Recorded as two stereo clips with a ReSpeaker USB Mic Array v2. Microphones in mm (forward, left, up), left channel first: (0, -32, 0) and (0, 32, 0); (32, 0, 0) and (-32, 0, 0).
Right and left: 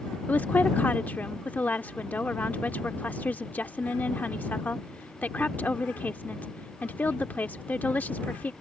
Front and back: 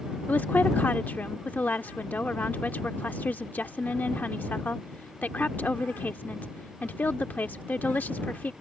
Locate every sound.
0.3 s a woman speaking: 45° right